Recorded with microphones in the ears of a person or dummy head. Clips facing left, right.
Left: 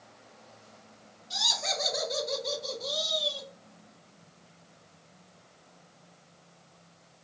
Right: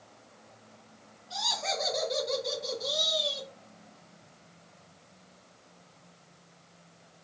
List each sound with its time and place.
1.3 s laughter: 30° left (ahead or behind), 2 m; by 3.5 s 30° right (ahead or behind), 1.9 m